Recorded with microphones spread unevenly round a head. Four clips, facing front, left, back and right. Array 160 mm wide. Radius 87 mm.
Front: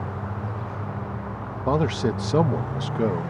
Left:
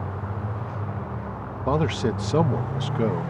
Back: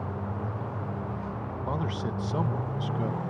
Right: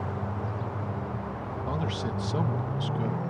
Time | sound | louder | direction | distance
1.7 | a man speaking | left 10 dB, front 11 dB | 25° left | ?